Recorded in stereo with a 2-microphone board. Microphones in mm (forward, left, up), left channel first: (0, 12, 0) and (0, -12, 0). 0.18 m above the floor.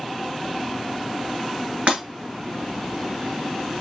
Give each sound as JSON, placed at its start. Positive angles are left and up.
{"t": 1.9, "sound": "breaking glass", "side_deg": -55, "distance_m": 1.4}